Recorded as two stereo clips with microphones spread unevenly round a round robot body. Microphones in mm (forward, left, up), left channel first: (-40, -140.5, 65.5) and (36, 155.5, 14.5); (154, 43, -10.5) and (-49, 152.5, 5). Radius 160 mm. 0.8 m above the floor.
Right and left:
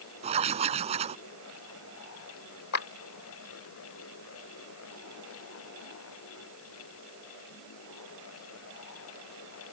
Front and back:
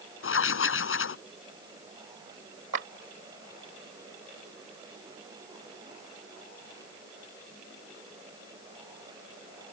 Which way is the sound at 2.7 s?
150° right.